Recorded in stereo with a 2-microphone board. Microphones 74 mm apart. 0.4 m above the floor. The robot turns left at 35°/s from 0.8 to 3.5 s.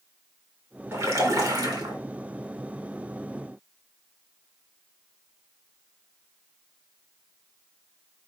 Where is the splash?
40° right, 3 m; by 1.9 s 80° right, 3 m.